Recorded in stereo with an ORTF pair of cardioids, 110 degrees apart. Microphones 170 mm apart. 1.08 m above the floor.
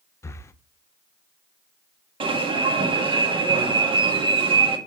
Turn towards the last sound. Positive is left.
turn(degrees=-30)